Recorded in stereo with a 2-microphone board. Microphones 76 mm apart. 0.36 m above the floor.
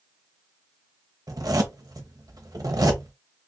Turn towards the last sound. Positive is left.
turn(degrees=-55)  # may be behind; listen again after turning